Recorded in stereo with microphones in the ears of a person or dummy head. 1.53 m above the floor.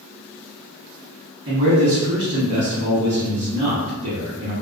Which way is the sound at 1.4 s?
50° right (ahead or behind).